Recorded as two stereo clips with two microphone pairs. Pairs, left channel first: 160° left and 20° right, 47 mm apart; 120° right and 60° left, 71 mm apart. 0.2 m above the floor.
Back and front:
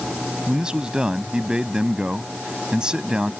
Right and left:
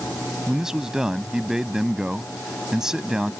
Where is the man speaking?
Straight ahead.